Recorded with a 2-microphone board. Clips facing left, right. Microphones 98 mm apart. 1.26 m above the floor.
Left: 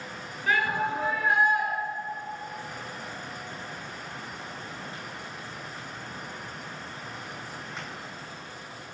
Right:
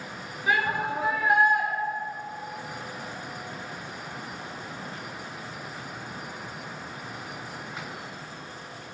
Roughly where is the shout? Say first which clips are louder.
Even; centre.